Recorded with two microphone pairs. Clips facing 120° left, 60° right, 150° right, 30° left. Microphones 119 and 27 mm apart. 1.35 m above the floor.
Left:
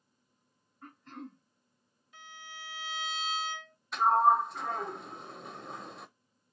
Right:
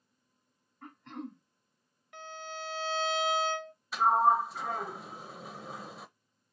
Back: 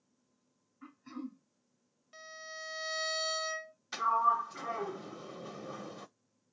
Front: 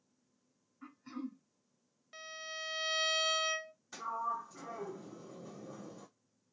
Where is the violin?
45° right, 0.8 m.